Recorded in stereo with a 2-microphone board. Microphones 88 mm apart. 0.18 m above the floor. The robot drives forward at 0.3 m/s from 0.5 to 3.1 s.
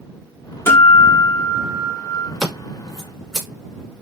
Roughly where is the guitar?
Left.